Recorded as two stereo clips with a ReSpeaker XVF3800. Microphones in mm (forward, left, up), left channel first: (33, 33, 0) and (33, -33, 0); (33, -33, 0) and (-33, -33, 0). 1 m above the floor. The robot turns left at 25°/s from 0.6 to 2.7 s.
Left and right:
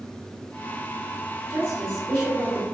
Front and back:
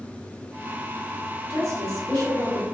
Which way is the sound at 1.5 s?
150° right.